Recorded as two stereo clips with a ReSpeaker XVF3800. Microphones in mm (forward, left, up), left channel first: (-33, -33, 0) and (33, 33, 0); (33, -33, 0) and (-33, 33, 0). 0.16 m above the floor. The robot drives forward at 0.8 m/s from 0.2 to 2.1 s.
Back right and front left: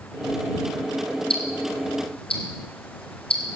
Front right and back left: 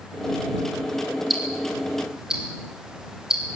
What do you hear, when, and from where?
1.3 s ticking: 135° right, 4 m; by 3.6 s 140° right, 4.5 m